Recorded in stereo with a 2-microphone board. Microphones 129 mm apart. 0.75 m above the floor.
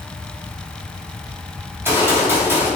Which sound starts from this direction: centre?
A gunshot, at 1.7 s.